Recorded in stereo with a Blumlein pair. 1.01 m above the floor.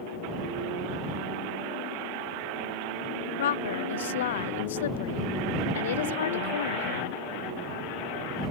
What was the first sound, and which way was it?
A woman speaking, 60° left.